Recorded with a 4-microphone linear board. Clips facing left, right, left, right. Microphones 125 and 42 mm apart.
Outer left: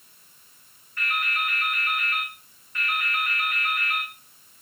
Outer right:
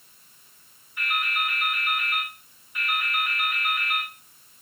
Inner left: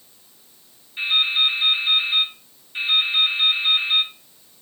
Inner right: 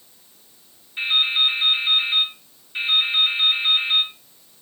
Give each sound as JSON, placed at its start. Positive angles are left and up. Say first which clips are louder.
{"t": 1.0, "sound": "dripping", "louder": "even, even", "side_deg": -10, "distance_m": 3.0}